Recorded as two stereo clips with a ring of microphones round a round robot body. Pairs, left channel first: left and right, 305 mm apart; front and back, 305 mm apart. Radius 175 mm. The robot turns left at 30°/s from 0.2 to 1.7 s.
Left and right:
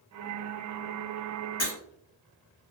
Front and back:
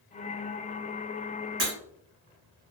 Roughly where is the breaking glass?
Behind left.